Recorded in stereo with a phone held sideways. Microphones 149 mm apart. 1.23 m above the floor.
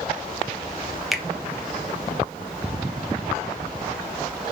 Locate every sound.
1.1 s a finger snap: centre (ahead or behind), 1.1 m